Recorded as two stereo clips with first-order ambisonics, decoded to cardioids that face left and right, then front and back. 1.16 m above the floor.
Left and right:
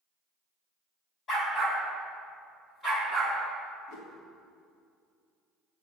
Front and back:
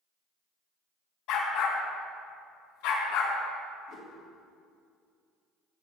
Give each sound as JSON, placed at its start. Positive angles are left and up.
{"t": 1.3, "sound": "a dog barking", "azimuth_deg": 30, "distance_m": 3.0}
{"t": 3.9, "sound": "a whoosh", "azimuth_deg": 50, "distance_m": 2.5}